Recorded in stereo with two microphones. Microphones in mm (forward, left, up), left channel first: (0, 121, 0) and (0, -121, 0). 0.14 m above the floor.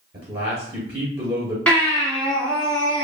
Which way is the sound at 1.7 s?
5° left (ahead or behind).